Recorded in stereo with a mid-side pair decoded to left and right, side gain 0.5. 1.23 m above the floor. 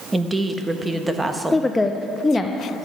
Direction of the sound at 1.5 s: 15° left.